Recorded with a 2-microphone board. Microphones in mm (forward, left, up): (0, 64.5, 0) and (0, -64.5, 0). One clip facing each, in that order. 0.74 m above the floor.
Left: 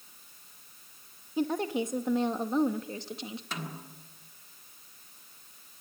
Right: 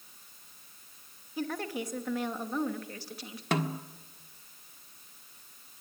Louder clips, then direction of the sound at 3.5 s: Right 14 dB; 65° right (ahead or behind).